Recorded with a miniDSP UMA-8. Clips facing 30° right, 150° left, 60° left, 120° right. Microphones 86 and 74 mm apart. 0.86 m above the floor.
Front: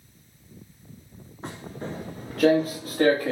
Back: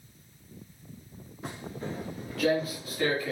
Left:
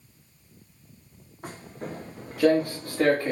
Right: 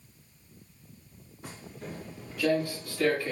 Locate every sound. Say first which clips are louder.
1.4 s footsteps: front 2 dB, left 5 dB; 25° left, 6 m; by 3.3 s 15° left, 5.5 m